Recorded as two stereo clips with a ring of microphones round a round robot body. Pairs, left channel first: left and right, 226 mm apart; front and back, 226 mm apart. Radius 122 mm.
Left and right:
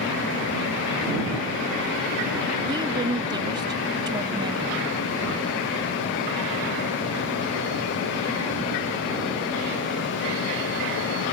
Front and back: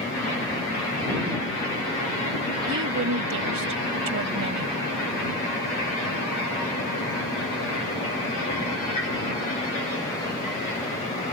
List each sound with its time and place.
2.7 s a woman speaking: 160° right